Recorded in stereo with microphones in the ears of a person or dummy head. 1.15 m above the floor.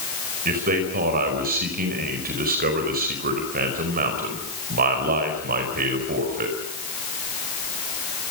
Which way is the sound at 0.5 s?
45° right (ahead or behind).